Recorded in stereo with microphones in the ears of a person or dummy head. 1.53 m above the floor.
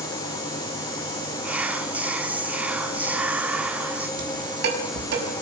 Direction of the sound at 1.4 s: 10° right (ahead or behind).